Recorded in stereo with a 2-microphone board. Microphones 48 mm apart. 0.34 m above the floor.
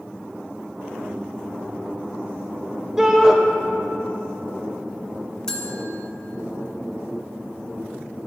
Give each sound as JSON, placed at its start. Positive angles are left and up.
{"t": 3.0, "sound": "a shout", "side_deg": -15, "distance_m": 0.9}
{"t": 5.5, "sound": "a bell", "side_deg": 15, "distance_m": 0.7}